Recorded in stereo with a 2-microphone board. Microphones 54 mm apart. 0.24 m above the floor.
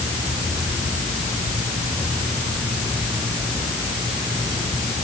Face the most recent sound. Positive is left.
No sound to turn to.